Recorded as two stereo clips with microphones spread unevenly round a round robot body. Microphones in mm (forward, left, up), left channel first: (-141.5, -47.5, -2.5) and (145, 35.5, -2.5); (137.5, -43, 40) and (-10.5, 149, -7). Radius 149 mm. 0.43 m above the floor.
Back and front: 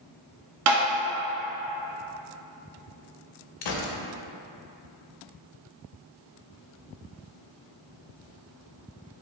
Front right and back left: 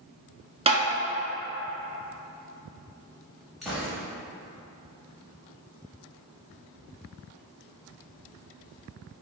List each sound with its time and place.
0.7 s tapping: 60° left, 1.0 m
3.6 s a gunshot: 145° right, 0.6 m